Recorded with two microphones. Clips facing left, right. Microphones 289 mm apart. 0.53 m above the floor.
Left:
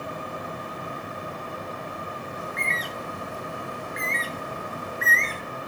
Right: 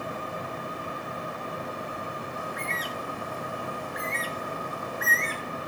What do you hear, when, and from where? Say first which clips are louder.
2.4 s a bird: left 1 dB; 25° left (ahead or behind), 0.8 m